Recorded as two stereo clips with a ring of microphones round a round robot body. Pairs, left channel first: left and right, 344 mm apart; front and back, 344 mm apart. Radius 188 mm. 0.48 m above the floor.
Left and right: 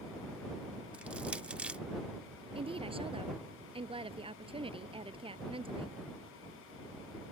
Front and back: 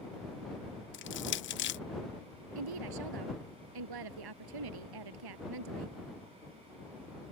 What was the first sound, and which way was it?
Crushing, 5° right.